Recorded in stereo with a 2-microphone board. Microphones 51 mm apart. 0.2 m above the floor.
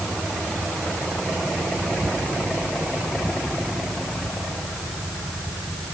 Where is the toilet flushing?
I don't hear a toilet flushing.